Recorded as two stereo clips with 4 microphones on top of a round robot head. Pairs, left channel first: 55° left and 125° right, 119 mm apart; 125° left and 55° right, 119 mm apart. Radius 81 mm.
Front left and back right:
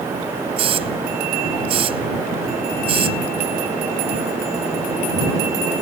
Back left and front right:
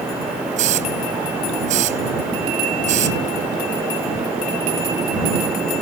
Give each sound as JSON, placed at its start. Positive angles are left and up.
{"t": 0.6, "sound": "a hiss", "azimuth_deg": -85}